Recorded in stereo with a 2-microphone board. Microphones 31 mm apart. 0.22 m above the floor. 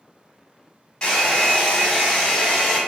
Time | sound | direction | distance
1.0 | a hair dryer | 30° left (ahead or behind) | 1.7 m